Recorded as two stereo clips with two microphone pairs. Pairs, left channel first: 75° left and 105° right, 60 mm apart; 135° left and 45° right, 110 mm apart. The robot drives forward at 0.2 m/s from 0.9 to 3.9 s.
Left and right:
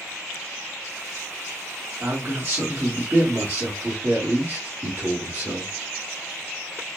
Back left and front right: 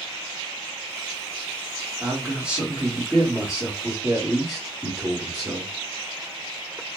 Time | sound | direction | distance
2.0 | a man speaking | 120° right | 1.5 m